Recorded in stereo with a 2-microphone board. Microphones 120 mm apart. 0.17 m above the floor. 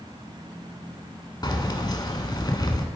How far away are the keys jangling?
About 1.0 m.